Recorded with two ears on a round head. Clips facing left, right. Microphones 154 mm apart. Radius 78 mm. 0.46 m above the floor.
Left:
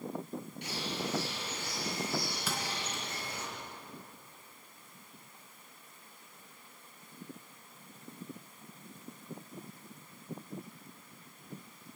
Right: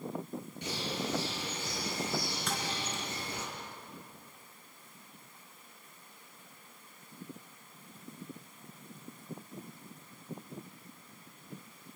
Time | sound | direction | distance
0.6 | a bird | 85° right | 7.5 m
2.5 | a thud | 5° left (ahead or behind) | 3.5 m